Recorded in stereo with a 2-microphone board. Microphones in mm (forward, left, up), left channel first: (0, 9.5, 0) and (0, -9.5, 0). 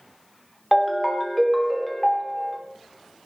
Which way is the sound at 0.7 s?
Centre (ahead or behind).